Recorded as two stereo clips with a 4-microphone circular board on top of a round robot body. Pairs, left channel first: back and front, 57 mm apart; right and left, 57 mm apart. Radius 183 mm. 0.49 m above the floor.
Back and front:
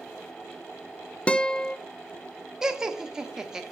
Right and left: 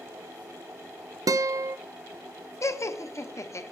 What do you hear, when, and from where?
1.3 s a guitar: 110° left, 0.5 m
2.6 s laughter: 80° right, 1.6 m